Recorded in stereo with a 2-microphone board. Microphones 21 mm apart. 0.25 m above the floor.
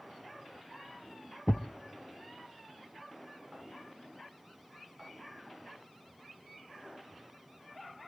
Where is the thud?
65° left (ahead or behind), 0.5 m.